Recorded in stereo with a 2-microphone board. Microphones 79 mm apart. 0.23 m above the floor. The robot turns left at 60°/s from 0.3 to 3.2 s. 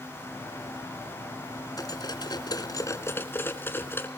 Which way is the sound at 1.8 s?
55° left (ahead or behind).